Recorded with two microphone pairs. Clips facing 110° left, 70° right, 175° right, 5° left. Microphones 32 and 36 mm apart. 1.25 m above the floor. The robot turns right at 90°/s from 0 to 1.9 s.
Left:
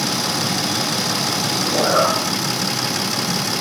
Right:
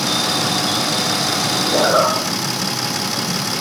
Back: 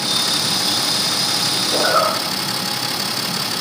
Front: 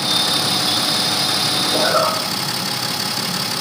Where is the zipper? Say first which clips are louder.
Right 2 dB, back 1 dB; 105° right, 0.7 m; by 3.6 s 85° right, 0.7 m.